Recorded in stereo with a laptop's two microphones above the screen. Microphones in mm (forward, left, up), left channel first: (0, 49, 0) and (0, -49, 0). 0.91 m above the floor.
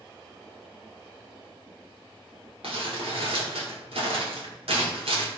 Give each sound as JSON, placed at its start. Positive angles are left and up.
{"t": 2.6, "sound": "crumpling", "side_deg": -80, "distance_m": 3.0}